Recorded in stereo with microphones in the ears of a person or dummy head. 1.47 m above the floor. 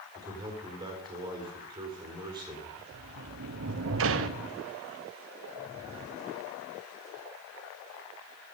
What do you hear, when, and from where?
0.1 s a man speaking: 20° right (ahead or behind), 4 m
2.9 s a sliding door: 60° right (ahead or behind), 1.0 m